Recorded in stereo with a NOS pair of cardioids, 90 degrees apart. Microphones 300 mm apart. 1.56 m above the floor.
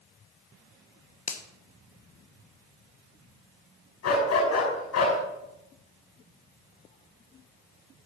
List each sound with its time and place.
1.3 s a finger snap: 25° left, 1.1 m
4.0 s a dog barking: 60° left, 5.5 m